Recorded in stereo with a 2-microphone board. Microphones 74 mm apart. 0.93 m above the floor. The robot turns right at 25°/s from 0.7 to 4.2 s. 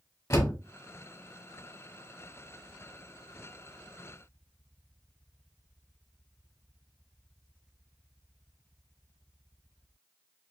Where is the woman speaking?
I don't hear a woman speaking.